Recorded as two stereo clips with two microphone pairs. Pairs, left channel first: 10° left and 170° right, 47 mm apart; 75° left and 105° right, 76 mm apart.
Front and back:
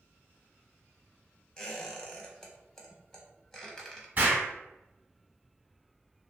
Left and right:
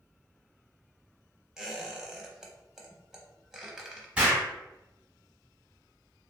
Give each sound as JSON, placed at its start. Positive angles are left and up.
{"t": 1.6, "sound": "a squeak", "azimuth_deg": -40, "distance_m": 0.6}
{"t": 4.2, "sound": "an explosion", "azimuth_deg": -165, "distance_m": 1.0}